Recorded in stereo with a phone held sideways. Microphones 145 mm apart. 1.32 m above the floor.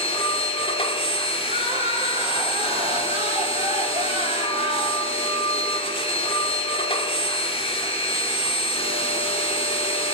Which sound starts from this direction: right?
Crying, at 1.4 s.